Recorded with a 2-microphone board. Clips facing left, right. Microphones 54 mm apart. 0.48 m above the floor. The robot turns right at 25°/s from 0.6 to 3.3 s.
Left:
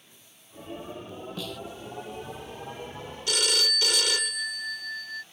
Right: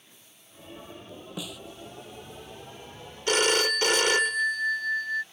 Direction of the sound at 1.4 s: 10° right (ahead or behind).